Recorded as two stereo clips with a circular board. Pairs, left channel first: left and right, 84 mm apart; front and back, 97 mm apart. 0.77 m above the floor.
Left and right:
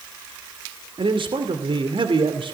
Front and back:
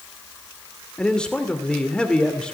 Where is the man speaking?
80° right, 2.5 m.